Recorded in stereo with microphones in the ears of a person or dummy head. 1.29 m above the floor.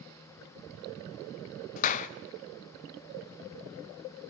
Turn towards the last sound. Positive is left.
turn(degrees=45)  # may be behind; listen again after turning